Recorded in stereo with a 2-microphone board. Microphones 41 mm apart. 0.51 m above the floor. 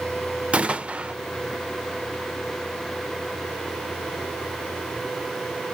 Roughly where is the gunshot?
Right.